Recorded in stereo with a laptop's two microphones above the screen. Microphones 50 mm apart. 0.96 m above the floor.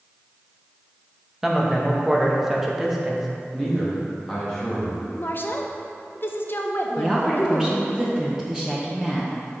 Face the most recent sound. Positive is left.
turn(degrees=-5)  # may be behind; listen again after turning